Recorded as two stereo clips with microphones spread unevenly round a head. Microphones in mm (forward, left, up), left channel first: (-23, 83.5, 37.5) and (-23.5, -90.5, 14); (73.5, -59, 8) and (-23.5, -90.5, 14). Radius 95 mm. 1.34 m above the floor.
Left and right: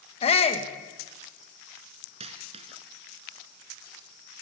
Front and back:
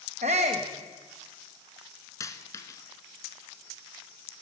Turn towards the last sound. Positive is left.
turn(degrees=-30)